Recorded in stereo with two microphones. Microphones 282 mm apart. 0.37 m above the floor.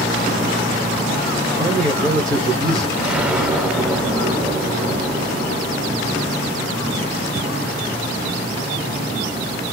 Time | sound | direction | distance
1.6 | a man speaking | centre (ahead or behind) | 1.3 m
3.0 | an explosion | 5° right (ahead or behind) | 0.7 m